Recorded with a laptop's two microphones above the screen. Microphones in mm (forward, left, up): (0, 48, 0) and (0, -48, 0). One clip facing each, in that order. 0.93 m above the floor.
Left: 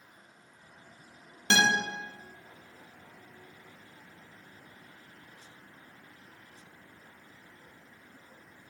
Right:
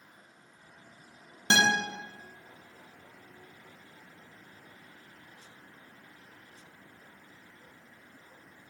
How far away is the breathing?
No breathing in this recording.